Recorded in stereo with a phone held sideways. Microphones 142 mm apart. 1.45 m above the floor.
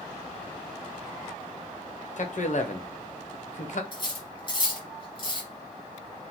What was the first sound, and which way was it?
A man speaking, 60° left (ahead or behind).